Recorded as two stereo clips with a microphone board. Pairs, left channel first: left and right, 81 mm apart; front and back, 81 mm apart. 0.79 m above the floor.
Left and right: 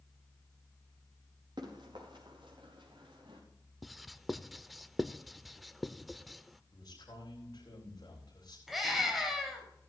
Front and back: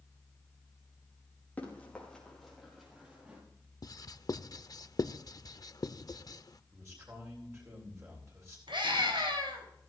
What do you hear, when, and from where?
1.6 s running footsteps: 70° right, 4.5 m; by 3.4 s 105° right, 5 m
3.8 s writing: straight ahead, 0.5 m
6.7 s a man speaking: 125° left, 8.5 m
8.7 s a scream: straight behind, 5 m